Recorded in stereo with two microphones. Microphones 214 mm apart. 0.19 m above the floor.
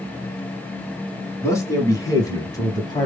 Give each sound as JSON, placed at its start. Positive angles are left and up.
{"t": 1.4, "sound": "a man speaking", "side_deg": 15, "distance_m": 1.7}